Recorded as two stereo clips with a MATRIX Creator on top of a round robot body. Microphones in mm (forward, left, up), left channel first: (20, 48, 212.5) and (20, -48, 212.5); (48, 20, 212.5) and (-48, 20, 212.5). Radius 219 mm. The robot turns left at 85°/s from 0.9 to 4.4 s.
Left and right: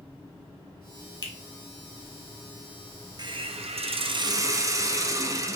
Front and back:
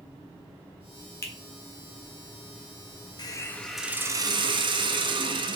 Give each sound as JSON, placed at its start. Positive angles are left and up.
{"t": 1.2, "sound": "a finger snap", "azimuth_deg": 55, "distance_m": 1.4}
{"t": 3.2, "sound": "a hiss", "azimuth_deg": -45, "distance_m": 0.5}